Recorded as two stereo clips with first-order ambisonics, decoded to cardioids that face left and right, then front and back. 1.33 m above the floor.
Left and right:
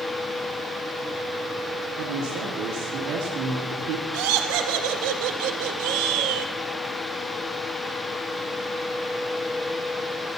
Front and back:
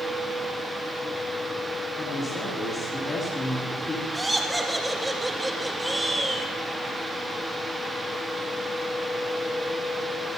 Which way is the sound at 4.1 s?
95° right.